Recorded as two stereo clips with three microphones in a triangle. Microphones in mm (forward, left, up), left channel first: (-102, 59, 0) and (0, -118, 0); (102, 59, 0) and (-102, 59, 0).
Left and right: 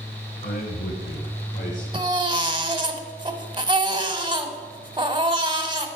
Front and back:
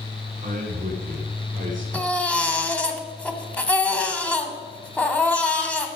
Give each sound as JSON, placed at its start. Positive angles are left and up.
{"t": 0.4, "sound": "a man speaking", "azimuth_deg": 145, "distance_m": 2.0}
{"t": 1.9, "sound": "a baby crying", "azimuth_deg": -70, "distance_m": 0.9}